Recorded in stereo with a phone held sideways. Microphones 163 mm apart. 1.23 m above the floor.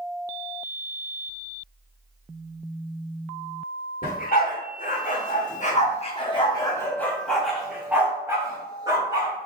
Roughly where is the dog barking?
Left.